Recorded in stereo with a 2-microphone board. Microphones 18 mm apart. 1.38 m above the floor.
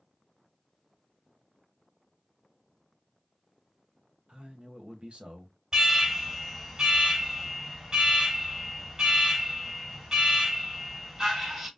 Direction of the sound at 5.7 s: 25° right (ahead or behind).